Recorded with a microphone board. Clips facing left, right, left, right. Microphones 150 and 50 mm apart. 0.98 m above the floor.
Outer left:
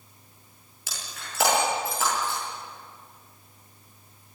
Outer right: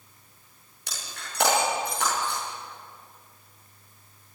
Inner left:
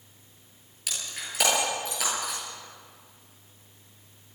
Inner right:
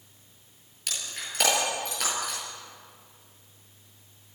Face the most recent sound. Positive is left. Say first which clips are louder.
# even, even
turn(degrees=0)  # may be behind; listen again after turning